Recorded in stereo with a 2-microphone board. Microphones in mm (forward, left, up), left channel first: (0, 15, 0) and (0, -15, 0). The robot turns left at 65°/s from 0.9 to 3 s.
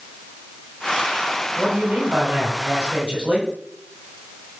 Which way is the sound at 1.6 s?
40° right.